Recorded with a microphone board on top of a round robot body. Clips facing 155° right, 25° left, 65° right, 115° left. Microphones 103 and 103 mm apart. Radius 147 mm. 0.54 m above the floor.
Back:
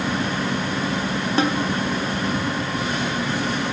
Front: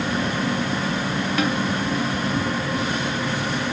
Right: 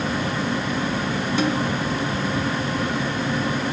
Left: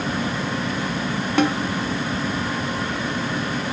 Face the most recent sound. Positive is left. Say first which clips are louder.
# back 3 dB, left 4 dB
turn(degrees=145)